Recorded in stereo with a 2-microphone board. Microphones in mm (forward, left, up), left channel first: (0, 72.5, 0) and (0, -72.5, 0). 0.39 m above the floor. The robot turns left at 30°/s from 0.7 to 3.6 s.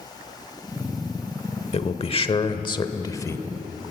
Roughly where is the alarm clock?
I don't hear an alarm clock.